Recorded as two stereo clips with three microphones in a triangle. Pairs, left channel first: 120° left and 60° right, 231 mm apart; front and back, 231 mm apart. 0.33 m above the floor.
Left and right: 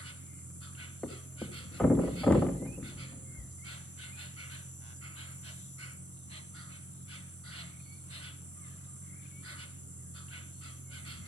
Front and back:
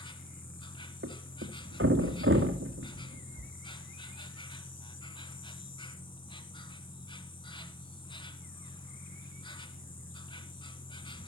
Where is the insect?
65° right, 1.0 m.